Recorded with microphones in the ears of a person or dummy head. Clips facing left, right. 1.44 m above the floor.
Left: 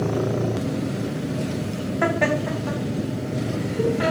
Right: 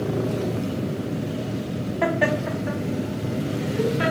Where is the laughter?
Centre (ahead or behind), 0.6 m; by 4.1 s 25° right (ahead or behind), 1.7 m.